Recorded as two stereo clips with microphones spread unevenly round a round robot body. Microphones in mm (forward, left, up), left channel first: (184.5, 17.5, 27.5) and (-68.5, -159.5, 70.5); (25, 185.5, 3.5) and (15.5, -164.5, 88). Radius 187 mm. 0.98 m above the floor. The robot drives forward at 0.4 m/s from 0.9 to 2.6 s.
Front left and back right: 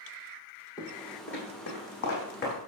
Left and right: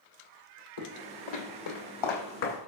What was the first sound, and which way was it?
Footsteps, 120° left.